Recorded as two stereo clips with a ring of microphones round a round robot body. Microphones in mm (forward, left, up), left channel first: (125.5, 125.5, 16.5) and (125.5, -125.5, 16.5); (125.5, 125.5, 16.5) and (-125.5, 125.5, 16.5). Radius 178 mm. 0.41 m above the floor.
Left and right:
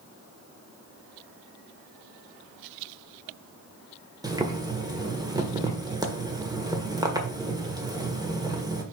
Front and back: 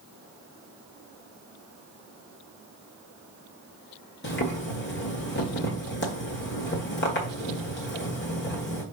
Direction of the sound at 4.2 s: 20° right.